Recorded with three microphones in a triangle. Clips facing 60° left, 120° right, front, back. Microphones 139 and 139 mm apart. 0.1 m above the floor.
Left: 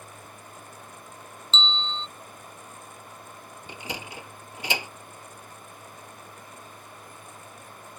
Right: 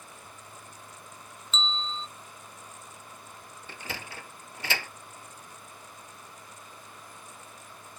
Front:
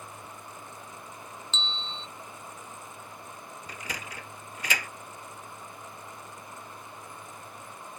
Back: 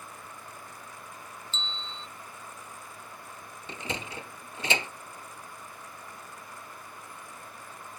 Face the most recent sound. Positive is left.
turn(degrees=125)